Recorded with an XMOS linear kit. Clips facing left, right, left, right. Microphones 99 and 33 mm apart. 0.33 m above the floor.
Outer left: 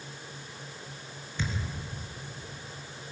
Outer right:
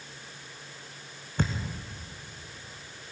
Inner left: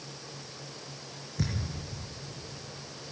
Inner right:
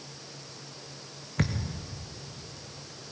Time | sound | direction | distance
1.4 | a thud | 50° right (ahead or behind) | 2.5 m